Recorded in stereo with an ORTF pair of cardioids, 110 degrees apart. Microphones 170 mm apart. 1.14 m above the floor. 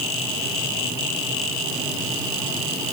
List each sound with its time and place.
Only background noise.